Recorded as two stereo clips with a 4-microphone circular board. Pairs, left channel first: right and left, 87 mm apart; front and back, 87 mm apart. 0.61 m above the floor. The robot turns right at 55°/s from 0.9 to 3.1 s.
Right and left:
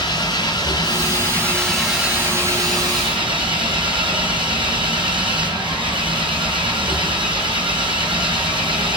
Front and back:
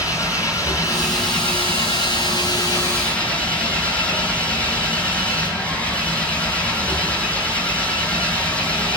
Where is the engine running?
50° right, 6 m; by 9.0 s 70° left, 6 m.